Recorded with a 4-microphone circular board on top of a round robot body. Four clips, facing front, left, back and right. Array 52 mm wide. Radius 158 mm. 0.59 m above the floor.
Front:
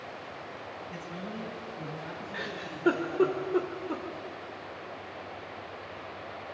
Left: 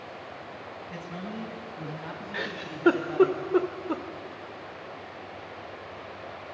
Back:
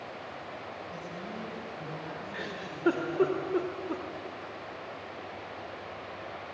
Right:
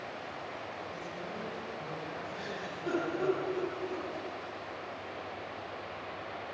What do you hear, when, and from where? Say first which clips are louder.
0.9 s a man speaking: left 3 dB, even; 65° left, 6.5 m; by 3.3 s 90° left, 6.5 m
2.3 s a giggle: left 5 dB, front 1 dB; 80° left, 2.5 m